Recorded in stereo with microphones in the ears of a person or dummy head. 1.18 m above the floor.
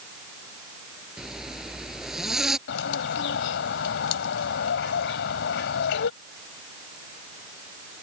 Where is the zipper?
Centre (ahead or behind).